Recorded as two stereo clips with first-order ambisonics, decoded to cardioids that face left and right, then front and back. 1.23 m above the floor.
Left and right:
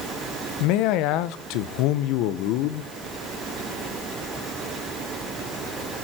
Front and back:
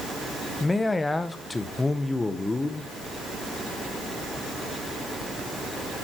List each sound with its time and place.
0.6 s a man speaking: 80° left, 0.9 m